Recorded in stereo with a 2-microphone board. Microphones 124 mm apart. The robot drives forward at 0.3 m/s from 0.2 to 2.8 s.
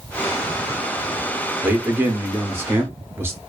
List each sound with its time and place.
1.6 s a man speaking: 15° right (ahead or behind), 0.8 m; by 3.4 s 20° right (ahead or behind), 0.7 m